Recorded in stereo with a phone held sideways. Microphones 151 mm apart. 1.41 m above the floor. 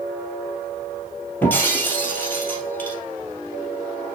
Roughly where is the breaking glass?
Centre.